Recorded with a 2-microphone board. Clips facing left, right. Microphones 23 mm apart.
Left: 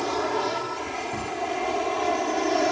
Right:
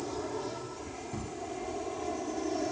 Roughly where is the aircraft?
Left.